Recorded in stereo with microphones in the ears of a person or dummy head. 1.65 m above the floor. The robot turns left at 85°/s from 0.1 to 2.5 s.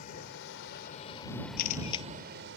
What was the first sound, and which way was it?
A vehicle, 125° left.